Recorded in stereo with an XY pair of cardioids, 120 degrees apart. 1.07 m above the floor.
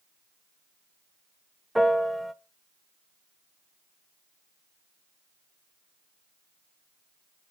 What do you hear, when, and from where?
1.8 s a piano: straight ahead, 0.6 m